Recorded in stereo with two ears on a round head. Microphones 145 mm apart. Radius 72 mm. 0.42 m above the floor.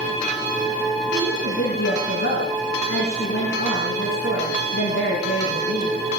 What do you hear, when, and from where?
1.1 s a woman speaking: 60° left (ahead or behind), 6 m